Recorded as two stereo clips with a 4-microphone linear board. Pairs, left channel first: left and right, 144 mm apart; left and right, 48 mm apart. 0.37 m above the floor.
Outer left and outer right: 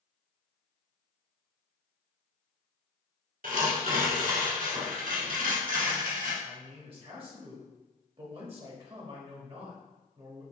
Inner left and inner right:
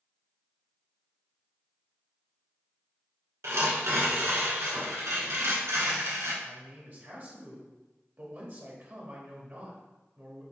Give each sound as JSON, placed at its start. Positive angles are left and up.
{"t": 3.4, "sound": "tearing paper", "side_deg": -85, "distance_m": 1.2}
{"t": 6.4, "sound": "a man speaking", "side_deg": -40, "distance_m": 1.2}